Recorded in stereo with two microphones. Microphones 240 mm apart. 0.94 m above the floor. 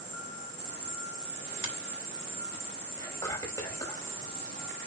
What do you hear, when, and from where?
0.0 s an insect: 10° left (ahead or behind), 5.5 m
1.6 s a finger snap: 55° left (ahead or behind), 2 m
3.0 s whispering: 15° left (ahead or behind), 4.5 m